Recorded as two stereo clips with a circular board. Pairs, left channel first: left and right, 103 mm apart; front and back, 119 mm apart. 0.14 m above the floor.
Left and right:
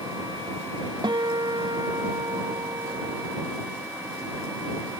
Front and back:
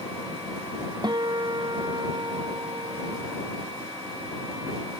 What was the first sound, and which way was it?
A guitar, 130° right.